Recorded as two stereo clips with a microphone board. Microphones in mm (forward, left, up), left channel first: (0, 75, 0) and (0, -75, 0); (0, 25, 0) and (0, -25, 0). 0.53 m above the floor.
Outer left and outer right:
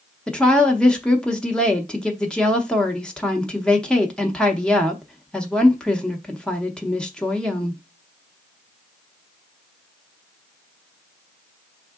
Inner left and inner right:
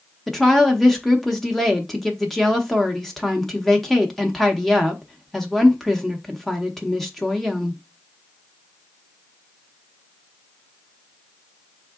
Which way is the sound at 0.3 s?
5° left (ahead or behind).